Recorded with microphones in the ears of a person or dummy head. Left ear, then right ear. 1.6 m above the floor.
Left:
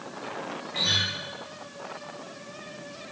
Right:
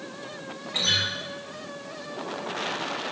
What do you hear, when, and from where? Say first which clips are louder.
0.7 s a guitar: right 1 dB; 25° right (ahead or behind), 1.2 m